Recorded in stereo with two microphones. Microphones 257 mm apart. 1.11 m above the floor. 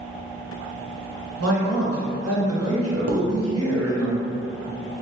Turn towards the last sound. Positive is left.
turn(degrees=-80)